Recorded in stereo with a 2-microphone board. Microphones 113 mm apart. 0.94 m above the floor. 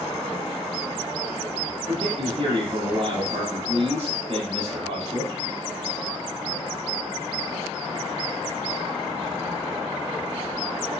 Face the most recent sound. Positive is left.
turn(degrees=-55)  # may be behind; listen again after turning